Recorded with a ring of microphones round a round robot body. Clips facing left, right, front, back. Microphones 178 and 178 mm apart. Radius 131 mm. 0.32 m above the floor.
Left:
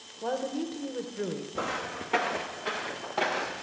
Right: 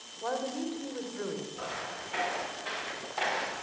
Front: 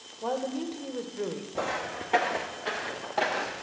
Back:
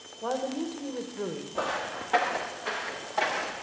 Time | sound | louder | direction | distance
0.2 | a woman speaking | left 2 dB, even | 80° left | 1.3 m
1.6 | footsteps | left 5 dB, even | 80° left | 1.8 m